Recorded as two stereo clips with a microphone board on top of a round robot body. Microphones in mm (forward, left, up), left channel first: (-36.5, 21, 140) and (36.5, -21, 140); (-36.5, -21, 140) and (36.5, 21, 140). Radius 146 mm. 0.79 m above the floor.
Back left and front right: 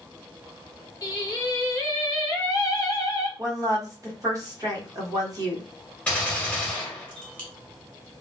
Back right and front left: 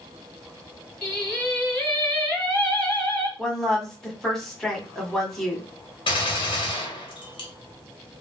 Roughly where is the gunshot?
Behind right.